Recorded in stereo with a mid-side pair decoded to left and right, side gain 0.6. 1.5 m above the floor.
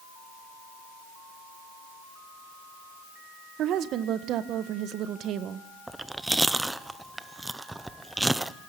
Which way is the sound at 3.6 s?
60° right.